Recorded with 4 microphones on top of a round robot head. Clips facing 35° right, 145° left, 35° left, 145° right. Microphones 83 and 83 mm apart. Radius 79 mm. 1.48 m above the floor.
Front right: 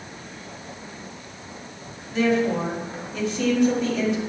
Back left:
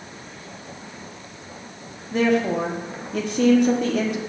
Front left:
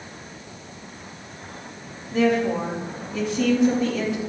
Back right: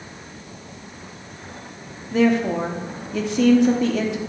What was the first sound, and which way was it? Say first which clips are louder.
A woman speaking: back left 1 dB, back right 2 dB; 170° right.